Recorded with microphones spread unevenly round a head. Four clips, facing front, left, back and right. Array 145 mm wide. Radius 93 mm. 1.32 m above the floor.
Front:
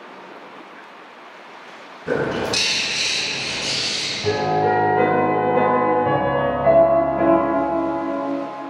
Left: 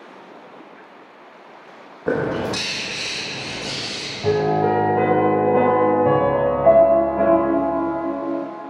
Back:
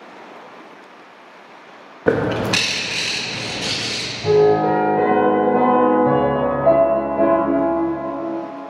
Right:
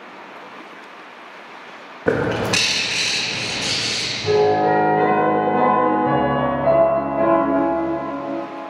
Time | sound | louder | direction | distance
2.1 | a bird | right 2 dB, back 4 dB | 150° right | 0.9 m
4.2 | a piano | right 3 dB, back 5 dB | 100° left | 2 m